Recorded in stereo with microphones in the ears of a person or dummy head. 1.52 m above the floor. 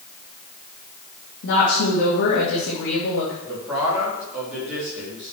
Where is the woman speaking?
60° left (ahead or behind), 2.5 m.